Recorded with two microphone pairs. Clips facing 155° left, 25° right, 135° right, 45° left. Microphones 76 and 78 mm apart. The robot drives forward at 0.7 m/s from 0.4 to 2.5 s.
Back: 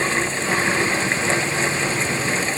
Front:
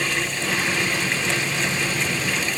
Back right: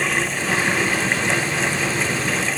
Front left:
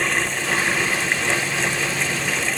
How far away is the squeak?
I don't hear a squeak.